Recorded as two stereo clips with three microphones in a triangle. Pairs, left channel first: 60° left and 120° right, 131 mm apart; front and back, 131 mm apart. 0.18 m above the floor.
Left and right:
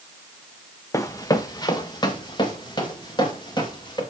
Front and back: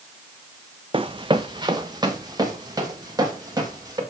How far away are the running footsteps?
About 0.7 m.